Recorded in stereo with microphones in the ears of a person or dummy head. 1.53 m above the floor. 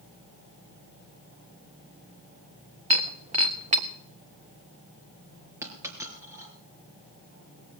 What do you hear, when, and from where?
2.9 s breaking glass: 35° right (ahead or behind), 1.5 m
5.6 s a dropped coin: 15° right (ahead or behind), 3 m